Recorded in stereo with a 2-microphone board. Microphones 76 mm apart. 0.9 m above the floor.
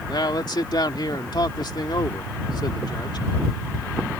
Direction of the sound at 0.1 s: 70° left (ahead or behind).